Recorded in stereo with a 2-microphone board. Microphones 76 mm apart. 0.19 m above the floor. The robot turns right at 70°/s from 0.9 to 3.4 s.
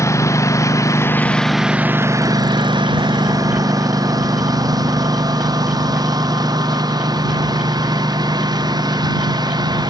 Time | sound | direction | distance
0.0 | a lawn mower | 40° left (ahead or behind) | ?